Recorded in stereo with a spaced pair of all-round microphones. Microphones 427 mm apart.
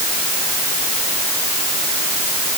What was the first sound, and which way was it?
Only background noise.